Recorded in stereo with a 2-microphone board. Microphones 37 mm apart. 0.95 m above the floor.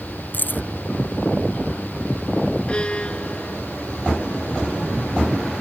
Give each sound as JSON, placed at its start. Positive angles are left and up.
{"t": 0.3, "sound": "keys jangling", "side_deg": 60}
{"t": 2.7, "sound": "a violin", "side_deg": 30}